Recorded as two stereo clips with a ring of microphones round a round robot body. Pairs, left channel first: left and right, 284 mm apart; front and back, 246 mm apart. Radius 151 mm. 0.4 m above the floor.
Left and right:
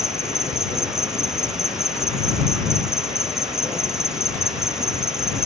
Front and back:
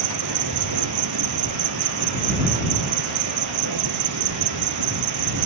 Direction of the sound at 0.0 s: Straight behind.